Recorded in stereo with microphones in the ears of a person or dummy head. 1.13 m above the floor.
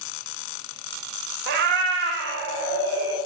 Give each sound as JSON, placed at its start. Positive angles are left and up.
{"t": 1.5, "sound": "a cat meowing", "side_deg": -60, "distance_m": 0.6}